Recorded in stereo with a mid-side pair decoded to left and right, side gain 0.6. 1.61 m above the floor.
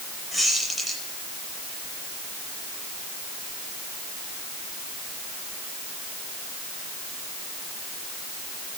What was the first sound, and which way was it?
A squeak, straight ahead.